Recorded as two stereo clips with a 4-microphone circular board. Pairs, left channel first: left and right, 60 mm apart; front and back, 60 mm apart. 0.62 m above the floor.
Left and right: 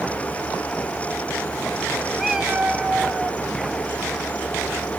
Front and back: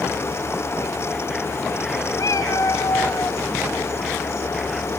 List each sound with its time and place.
2.2 s a cat meowing: 5° right, 1.1 m; by 3.4 s 25° right, 1.9 m